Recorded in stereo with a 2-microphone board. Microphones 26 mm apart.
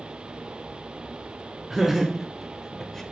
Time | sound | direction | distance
1.7 | laughter | 15° right (ahead or behind) | 1.0 m